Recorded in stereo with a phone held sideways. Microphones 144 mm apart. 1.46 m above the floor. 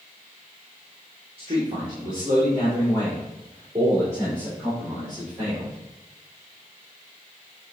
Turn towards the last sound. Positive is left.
turn(degrees=-20)  # may be behind; listen again after turning